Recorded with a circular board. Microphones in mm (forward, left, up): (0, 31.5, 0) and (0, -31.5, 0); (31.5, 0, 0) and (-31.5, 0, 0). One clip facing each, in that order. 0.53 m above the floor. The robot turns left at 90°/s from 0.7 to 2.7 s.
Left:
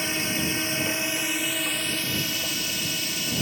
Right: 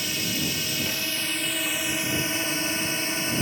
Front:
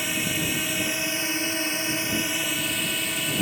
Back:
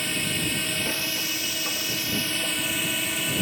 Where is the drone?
75° left; by 3.4 s 90° right.